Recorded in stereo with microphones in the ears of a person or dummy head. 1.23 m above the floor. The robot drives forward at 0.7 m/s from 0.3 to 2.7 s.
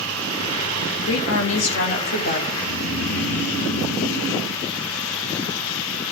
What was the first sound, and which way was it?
A woman speaking, 80° left.